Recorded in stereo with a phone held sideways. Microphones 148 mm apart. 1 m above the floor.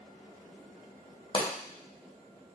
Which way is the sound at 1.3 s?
35° left (ahead or behind).